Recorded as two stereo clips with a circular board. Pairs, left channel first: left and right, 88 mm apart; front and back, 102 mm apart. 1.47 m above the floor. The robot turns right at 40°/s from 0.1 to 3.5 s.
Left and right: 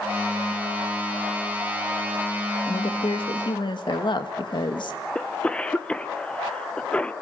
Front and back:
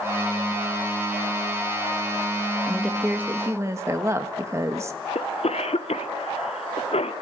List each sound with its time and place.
2.7 s a woman speaking: 85° left, 1.7 m; by 5.0 s 120° left, 1.7 m
5.2 s a cough: 10° left, 1.2 m